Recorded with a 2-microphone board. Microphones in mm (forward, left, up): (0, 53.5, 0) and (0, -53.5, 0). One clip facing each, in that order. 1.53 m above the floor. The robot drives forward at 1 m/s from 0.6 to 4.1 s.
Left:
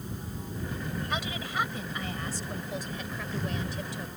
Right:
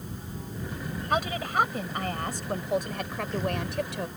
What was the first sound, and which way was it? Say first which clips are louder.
A woman speaking: right 10 dB; 45° right (ahead or behind).